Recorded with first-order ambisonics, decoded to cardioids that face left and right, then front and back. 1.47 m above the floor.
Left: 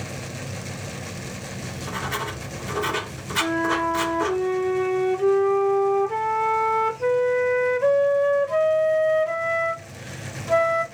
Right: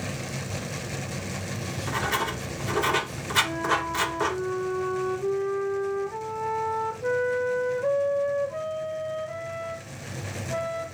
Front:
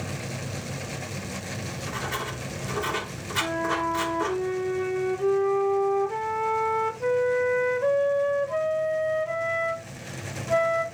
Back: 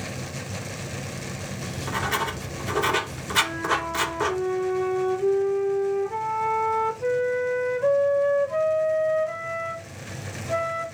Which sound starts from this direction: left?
A flute, at 3.4 s.